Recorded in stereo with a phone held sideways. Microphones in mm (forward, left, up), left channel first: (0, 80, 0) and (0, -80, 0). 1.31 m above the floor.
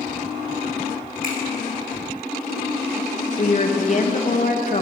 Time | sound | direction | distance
1.2 | a finger snap | 70° right (ahead or behind) | 3 m
3.4 | a woman speaking | 55° left (ahead or behind) | 1.6 m